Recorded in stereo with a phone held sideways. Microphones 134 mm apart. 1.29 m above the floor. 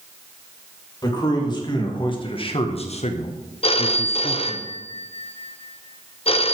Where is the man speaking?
30° left (ahead or behind), 2.5 m; by 4.6 s 35° left (ahead or behind), 0.9 m.